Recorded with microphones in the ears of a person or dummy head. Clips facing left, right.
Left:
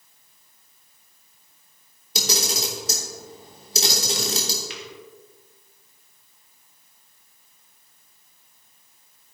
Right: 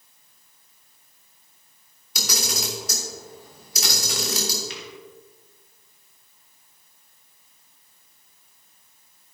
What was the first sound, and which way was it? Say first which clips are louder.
A camera shutter: left 3 dB; 30° left (ahead or behind).